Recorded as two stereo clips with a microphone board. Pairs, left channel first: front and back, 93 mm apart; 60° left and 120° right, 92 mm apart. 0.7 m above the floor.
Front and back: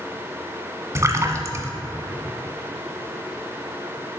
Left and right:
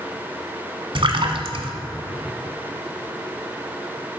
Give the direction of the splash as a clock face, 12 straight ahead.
4 o'clock.